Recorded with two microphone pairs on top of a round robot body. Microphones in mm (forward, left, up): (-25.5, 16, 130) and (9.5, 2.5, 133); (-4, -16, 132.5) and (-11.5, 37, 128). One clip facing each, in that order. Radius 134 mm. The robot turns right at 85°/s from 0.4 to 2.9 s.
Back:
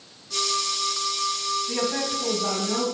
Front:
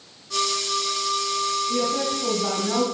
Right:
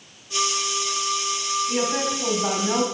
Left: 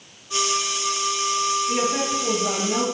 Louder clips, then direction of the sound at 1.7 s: Front 3 dB, left 1 dB; straight behind.